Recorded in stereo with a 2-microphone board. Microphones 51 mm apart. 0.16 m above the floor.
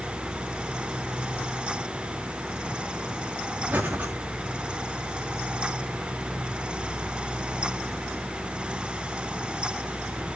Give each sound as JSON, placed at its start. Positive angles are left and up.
{"t": 3.7, "sound": "breathing", "side_deg": -40, "distance_m": 3.0}